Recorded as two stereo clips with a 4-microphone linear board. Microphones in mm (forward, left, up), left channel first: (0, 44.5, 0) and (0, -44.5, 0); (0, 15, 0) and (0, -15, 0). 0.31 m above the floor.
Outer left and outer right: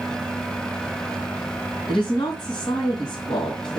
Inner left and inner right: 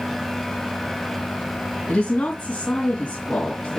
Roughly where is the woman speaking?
Left.